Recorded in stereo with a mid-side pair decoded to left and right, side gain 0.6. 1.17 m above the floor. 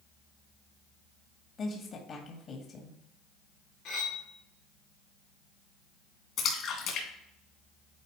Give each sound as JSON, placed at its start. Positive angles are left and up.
{"t": 1.6, "sound": "a woman speaking", "azimuth_deg": 45, "distance_m": 1.6}
{"t": 3.9, "sound": "cutlery clinking", "azimuth_deg": 70, "distance_m": 2.0}
{"t": 6.4, "sound": "a splash", "azimuth_deg": 55, "distance_m": 2.5}